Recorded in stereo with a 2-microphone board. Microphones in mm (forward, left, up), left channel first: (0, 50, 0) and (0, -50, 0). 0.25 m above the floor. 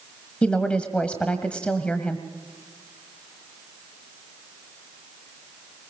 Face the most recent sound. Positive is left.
turn(degrees=10)  # may be behind; listen again after turning